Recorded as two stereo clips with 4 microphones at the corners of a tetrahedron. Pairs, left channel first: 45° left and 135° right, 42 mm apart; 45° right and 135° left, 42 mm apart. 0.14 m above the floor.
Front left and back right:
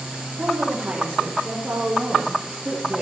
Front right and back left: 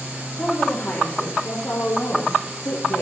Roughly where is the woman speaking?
Right.